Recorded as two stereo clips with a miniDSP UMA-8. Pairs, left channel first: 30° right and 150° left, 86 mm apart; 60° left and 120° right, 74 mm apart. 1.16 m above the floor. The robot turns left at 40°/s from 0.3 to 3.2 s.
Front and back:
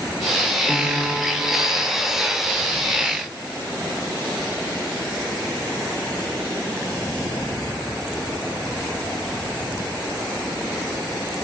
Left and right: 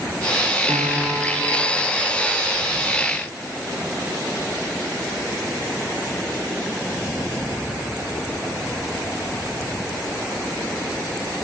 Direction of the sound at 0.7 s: 115° right.